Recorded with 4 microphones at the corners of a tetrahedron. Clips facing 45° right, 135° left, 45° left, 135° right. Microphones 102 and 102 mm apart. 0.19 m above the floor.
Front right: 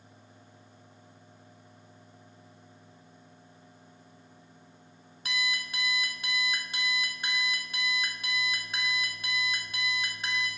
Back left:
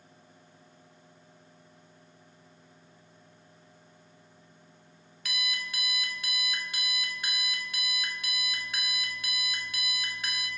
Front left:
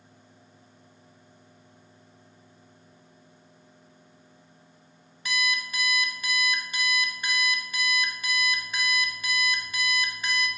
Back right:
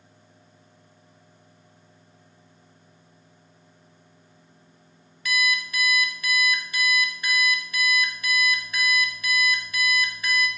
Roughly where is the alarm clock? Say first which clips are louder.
Front right 4 dB, back right 4 dB; ahead.